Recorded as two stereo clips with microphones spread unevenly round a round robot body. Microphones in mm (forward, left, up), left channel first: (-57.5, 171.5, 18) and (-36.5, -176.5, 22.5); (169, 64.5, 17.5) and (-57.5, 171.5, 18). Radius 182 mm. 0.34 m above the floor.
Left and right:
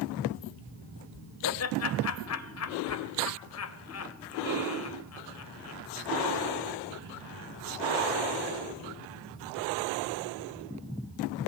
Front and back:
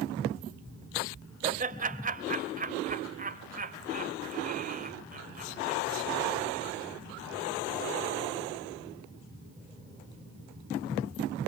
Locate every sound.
1.4 s laughter: 110° left, 2.0 m